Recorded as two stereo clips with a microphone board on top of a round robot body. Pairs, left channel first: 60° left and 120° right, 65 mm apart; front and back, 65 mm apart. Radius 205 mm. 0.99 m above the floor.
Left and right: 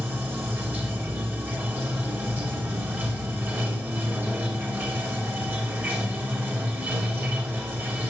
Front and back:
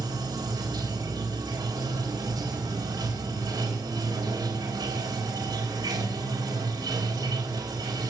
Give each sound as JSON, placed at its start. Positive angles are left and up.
{"t": 0.0, "sound": "running water", "azimuth_deg": 180, "distance_m": 4.0}